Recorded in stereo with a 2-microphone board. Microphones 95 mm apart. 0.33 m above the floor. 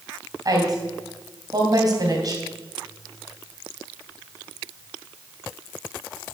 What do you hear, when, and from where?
0.5 s a woman speaking: 40° right (ahead or behind), 2.5 m